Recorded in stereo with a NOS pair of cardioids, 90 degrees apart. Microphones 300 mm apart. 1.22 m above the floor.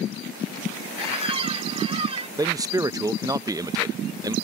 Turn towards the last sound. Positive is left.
turn(degrees=-10)